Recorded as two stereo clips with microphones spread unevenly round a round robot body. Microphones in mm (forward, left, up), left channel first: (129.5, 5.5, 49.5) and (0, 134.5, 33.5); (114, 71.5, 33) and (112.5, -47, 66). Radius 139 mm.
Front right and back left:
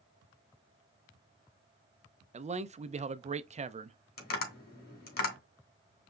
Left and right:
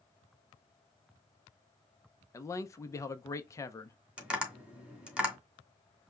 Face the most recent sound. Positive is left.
turn(degrees=-10)